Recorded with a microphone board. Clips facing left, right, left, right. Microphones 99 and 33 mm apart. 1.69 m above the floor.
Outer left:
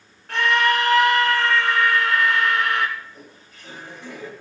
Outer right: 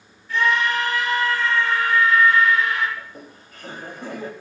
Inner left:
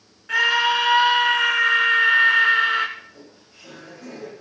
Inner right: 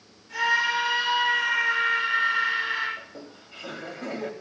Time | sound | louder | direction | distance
0.3 | a scream | outer left 1 dB, inner left 5 dB | 75° left (ahead or behind) | 4 m
3.0 | laughter | outer right 2 dB, inner right 1 dB | 55° right (ahead or behind) | 3 m